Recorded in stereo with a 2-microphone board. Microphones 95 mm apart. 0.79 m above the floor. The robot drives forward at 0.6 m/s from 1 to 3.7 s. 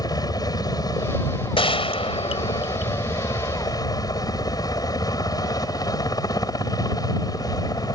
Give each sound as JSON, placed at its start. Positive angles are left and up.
{"t": 0.0, "sound": "a helicopter", "side_deg": 40}
{"t": 1.6, "sound": "a gunshot", "side_deg": 75}